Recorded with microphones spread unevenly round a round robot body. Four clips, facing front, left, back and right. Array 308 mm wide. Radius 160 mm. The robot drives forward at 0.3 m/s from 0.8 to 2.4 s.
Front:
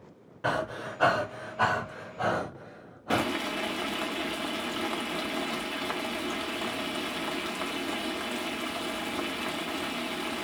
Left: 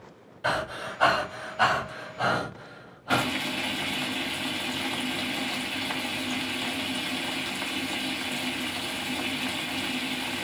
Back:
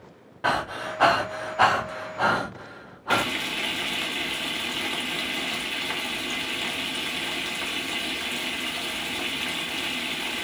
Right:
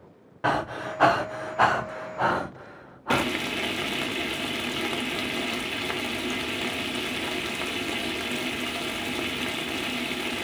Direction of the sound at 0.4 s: 125° right.